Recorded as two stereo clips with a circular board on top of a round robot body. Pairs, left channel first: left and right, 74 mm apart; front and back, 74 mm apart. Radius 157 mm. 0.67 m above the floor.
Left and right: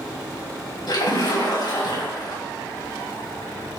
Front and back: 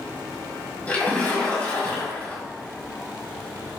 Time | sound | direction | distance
0.9 | a splash | 70° left | 5.5 m